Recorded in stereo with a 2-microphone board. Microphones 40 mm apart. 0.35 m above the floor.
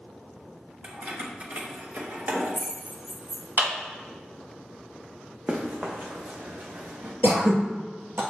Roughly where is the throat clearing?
Right.